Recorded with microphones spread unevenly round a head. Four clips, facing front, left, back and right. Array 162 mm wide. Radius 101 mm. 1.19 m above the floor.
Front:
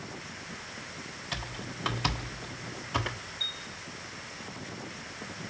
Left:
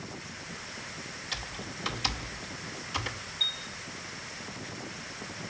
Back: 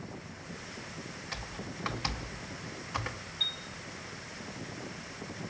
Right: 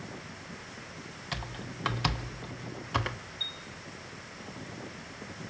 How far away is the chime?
About 2.5 m.